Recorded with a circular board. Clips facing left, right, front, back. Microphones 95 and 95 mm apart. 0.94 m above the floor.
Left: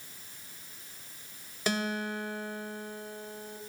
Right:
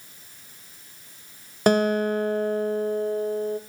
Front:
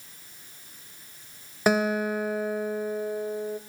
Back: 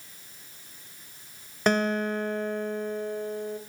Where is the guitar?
80° right, 1.0 m.